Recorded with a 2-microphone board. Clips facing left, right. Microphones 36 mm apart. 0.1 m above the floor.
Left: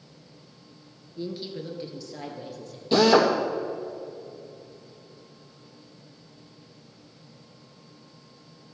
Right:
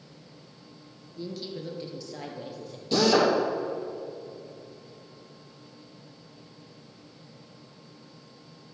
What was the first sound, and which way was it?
A woman speaking, 25° left (ahead or behind).